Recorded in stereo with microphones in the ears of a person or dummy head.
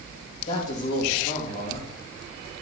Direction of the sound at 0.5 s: 40° left (ahead or behind).